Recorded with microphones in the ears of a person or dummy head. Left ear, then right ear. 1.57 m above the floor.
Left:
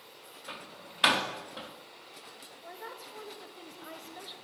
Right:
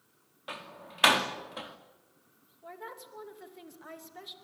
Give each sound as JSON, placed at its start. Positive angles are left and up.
{"t": 0.5, "sound": "a door slam", "side_deg": -20, "distance_m": 2.0}
{"t": 2.6, "sound": "a woman speaking", "side_deg": 0, "distance_m": 2.5}